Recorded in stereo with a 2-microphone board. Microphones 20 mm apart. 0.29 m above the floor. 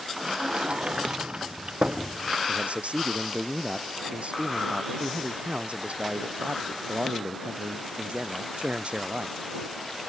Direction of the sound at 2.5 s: 80° right.